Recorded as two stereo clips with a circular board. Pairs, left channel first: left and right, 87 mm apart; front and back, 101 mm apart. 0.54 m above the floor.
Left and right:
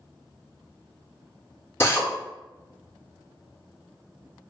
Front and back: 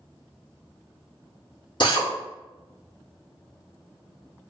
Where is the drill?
30° left, 0.7 m.